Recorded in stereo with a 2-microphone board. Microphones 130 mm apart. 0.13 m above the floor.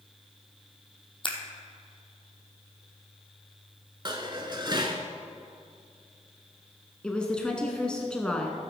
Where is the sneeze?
No sneeze in this recording.